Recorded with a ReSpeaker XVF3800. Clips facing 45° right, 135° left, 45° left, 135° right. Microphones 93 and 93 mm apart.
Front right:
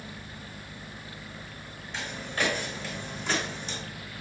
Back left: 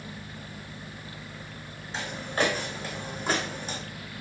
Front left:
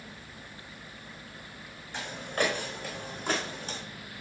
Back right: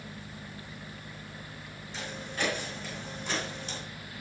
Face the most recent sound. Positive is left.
turn(degrees=90)